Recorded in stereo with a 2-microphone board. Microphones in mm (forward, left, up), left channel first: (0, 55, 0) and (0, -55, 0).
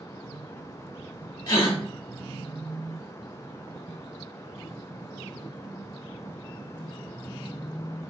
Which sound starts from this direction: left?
A gasp, at 1.5 s.